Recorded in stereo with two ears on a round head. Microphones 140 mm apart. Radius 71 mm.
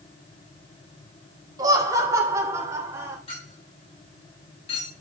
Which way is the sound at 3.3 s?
35° left (ahead or behind).